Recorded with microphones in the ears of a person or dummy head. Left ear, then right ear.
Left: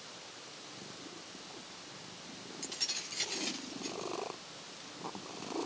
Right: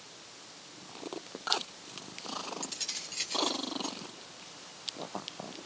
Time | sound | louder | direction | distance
2.6 | keys jangling | even | 10° right (ahead or behind) | 4 m